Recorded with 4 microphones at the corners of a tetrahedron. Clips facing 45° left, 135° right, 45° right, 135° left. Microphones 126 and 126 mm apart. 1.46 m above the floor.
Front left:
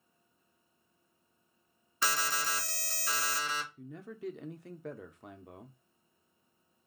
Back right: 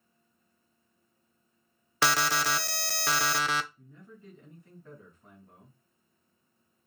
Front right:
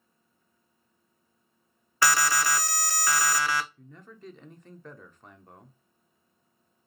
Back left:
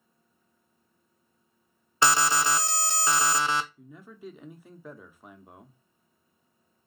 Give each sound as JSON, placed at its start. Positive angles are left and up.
{"t": 2.0, "sound": "an alarm", "azimuth_deg": -160, "distance_m": 0.5}
{"t": 3.8, "sound": "a man speaking", "azimuth_deg": 50, "distance_m": 0.8}